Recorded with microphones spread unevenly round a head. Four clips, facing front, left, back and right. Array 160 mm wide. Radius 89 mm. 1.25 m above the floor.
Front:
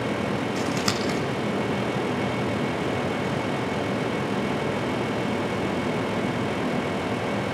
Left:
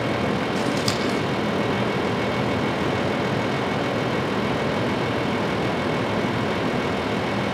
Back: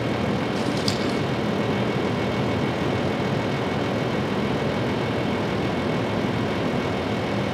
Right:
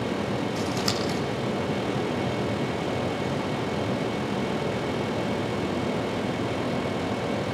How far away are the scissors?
About 6.5 m.